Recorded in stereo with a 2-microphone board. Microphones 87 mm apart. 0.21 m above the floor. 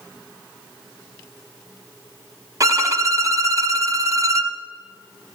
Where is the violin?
35° right (ahead or behind), 0.9 m.